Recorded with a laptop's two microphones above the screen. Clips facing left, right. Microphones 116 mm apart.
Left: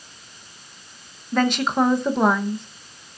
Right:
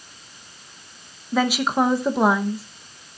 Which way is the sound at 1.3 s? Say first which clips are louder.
Even; 5° right (ahead or behind).